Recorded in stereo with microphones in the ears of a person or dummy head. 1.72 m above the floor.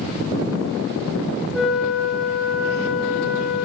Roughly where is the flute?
Centre.